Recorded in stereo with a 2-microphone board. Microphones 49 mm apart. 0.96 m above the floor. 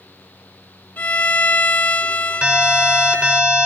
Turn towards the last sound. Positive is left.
turn(degrees=-35)  # may be behind; listen again after turning